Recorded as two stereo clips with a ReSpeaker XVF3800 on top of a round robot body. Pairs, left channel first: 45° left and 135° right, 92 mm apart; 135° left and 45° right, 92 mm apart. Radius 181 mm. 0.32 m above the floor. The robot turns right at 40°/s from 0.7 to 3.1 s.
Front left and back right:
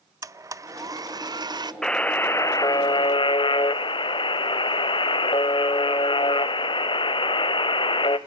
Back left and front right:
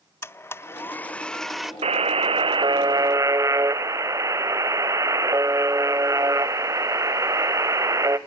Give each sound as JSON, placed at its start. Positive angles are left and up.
{"t": 0.2, "sound": "a blender", "azimuth_deg": -170, "distance_m": 0.7}
{"t": 1.8, "sound": "a buzzer", "azimuth_deg": -40, "distance_m": 0.7}